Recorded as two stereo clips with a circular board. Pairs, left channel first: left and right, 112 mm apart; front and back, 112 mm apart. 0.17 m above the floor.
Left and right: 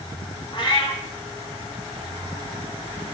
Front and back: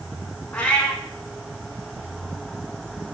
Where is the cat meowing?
75° left, 0.5 m.